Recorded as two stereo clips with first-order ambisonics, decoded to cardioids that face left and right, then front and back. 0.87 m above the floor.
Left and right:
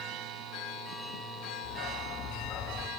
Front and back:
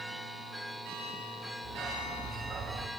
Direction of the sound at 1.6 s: 100° left.